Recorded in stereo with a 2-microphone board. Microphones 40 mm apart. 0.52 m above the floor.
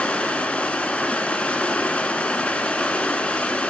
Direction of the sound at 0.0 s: 25° left (ahead or behind).